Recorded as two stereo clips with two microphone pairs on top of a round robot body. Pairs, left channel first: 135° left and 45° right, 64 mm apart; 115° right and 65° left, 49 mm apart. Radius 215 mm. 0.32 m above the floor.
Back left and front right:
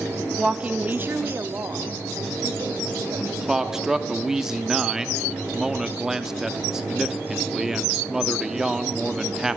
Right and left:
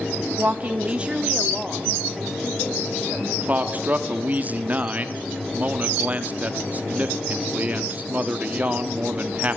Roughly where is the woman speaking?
Ahead left.